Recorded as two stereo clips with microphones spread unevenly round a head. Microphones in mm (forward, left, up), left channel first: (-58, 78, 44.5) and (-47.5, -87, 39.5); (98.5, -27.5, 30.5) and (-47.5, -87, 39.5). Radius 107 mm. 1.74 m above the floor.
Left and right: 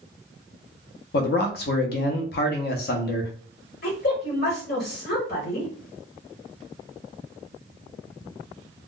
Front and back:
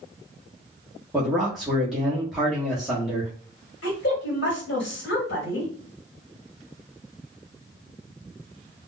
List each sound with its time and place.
1.1 s a man speaking: 115° left, 0.7 m
3.8 s a woman speaking: 50° left, 1.4 m